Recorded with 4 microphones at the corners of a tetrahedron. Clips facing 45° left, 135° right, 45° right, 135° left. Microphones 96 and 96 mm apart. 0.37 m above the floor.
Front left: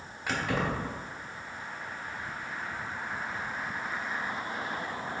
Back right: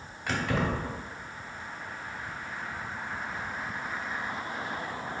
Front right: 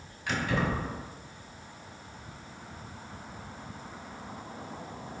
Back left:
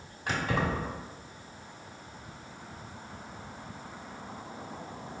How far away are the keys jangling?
About 0.9 m.